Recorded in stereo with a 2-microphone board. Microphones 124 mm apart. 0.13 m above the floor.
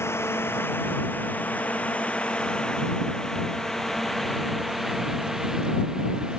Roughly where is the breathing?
No breathing in this recording.